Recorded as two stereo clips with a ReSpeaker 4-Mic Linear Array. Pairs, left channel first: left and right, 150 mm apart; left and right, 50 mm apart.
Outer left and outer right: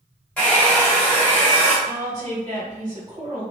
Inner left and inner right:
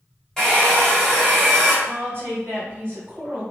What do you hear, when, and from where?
0.4 s a hair dryer: 10° left (ahead or behind), 1.3 m
1.9 s a woman speaking: 45° right (ahead or behind), 1.8 m